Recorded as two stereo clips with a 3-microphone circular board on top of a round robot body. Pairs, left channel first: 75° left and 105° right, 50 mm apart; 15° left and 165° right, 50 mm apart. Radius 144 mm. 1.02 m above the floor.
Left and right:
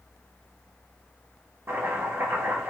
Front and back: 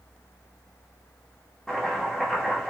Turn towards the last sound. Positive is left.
turn(degrees=-70)